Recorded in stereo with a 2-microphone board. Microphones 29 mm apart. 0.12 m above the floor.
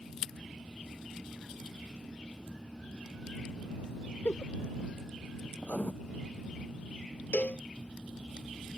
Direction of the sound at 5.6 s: 65° left (ahead or behind).